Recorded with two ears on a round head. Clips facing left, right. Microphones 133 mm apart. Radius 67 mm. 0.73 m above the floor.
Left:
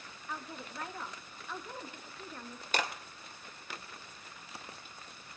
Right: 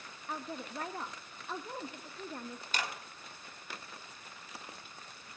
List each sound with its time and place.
0.3 s a woman speaking: 30° right (ahead or behind), 0.6 m
2.7 s a clap: 35° left (ahead or behind), 2.5 m